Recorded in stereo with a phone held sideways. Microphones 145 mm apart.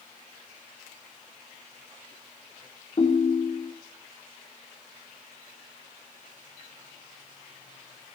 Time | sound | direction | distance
3.0 | a ringtone | 45° left (ahead or behind) | 1.8 m